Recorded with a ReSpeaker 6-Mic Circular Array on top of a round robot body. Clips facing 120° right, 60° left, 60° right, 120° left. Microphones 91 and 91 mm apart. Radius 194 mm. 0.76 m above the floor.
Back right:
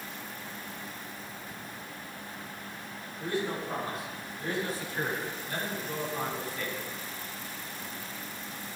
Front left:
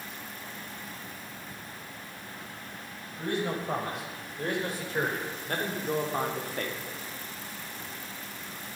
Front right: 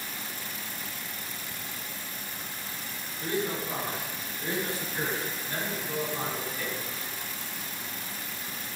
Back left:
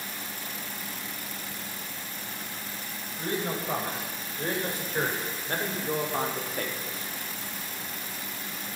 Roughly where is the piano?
No piano in this recording.